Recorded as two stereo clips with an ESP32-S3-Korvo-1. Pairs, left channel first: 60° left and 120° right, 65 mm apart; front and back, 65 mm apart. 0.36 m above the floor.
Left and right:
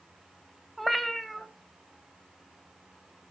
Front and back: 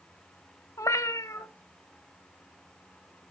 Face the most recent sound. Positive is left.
turn(degrees=-30)